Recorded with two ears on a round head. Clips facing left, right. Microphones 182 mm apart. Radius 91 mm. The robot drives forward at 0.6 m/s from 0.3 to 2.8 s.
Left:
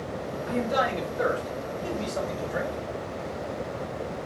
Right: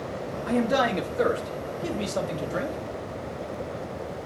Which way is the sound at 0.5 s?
65° right (ahead or behind).